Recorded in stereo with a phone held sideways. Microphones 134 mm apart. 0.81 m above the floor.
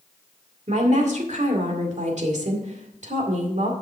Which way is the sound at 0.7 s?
65° right (ahead or behind).